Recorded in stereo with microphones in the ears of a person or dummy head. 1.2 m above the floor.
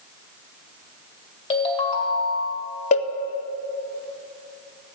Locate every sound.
1.5 s a ringtone: 35° left (ahead or behind), 2 m
2.9 s a cowbell: 35° left (ahead or behind), 0.6 m